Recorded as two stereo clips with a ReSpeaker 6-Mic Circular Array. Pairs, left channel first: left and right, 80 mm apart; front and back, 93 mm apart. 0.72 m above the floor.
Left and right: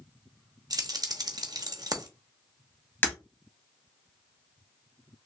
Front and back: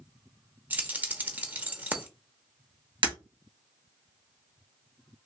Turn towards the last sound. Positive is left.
turn(degrees=155)